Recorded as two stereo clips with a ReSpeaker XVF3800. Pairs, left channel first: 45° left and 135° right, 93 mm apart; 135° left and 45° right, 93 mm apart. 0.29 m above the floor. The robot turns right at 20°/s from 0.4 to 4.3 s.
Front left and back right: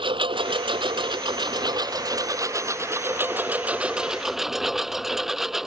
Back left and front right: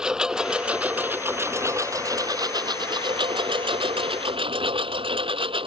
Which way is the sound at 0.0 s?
130° right.